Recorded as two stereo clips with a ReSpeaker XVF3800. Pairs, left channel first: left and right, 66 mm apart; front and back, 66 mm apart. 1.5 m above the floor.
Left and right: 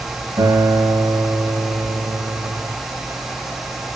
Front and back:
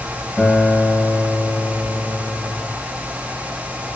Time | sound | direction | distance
0.4 | a guitar | 80° right | 7 m